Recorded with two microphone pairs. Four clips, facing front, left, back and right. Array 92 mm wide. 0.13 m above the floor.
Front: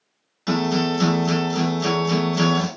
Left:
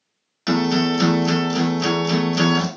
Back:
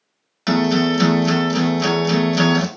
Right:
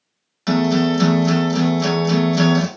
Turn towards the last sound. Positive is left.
turn(degrees=170)